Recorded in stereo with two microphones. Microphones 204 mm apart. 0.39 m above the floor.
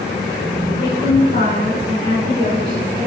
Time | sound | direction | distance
0.8 | a woman speaking | 40° left (ahead or behind) | 4.5 m